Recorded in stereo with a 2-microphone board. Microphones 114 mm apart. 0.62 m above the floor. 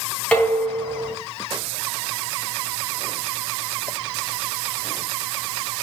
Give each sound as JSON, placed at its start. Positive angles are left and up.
{"t": 0.3, "sound": "dishes clattering", "side_deg": 10, "distance_m": 4.0}